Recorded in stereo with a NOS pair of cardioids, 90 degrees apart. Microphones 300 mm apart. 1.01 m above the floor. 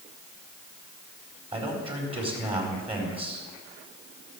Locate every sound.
1.5 s a man speaking: 20° right, 4 m